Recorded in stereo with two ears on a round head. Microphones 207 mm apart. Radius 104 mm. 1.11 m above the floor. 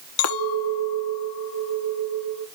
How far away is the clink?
About 1.1 m.